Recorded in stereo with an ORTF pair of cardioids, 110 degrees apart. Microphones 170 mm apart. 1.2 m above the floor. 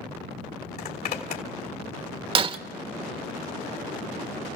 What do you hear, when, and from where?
0.8 s a zipper: 65° left, 3 m
2.4 s breaking glass: 35° right, 1.1 m